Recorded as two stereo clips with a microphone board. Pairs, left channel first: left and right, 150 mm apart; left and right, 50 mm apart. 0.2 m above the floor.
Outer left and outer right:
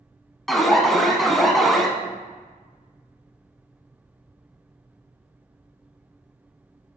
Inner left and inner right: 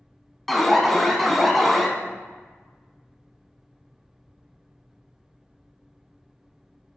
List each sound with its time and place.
0.5 s an alarm: centre (ahead or behind), 0.9 m